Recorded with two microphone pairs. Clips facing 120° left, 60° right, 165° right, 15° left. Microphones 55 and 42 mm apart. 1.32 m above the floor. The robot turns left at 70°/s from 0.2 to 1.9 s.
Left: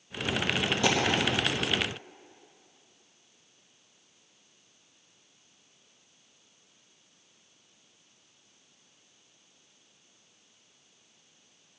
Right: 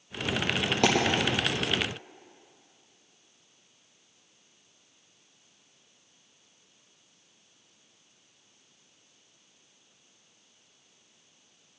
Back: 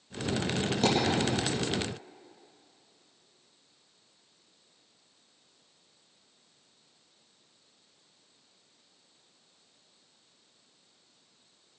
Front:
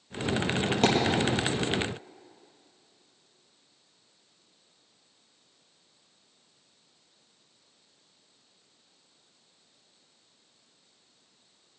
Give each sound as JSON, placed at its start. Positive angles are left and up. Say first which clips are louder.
{"t": 0.8, "sound": "a dropped coin", "louder": "right 3 dB, front 2 dB", "azimuth_deg": -35, "distance_m": 4.5}